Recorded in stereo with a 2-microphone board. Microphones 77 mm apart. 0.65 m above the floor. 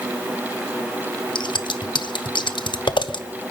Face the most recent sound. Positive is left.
turn(degrees=80)